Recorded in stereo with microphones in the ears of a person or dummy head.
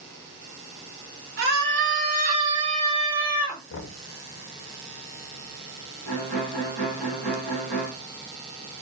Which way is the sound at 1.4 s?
65° right (ahead or behind).